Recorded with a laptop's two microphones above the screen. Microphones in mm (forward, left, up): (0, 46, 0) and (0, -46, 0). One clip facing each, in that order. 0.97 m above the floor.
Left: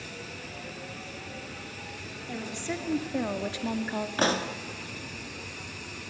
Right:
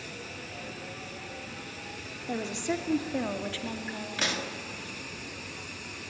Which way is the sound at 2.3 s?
25° right (ahead or behind).